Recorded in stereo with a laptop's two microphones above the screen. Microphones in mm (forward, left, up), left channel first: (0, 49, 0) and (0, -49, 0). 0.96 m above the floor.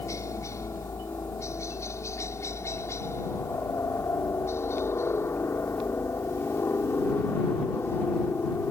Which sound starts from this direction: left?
A helicopter, at 0.0 s.